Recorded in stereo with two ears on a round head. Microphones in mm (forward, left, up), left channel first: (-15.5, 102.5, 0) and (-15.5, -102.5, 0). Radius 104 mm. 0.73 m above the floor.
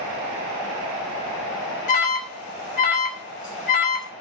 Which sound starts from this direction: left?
An alarm, at 1.9 s.